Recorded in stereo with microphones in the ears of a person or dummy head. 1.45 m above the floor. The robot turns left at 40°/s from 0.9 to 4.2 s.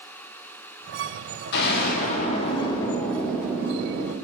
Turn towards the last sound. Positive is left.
turn(degrees=-35)